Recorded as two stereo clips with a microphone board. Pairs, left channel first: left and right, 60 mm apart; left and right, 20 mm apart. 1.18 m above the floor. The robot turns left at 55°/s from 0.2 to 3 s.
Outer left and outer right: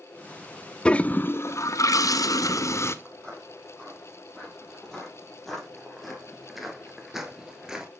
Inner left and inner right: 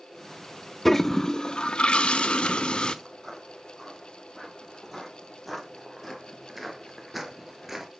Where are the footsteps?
10° left (ahead or behind), 2.5 m; by 7.9 s 10° right (ahead or behind), 1.2 m.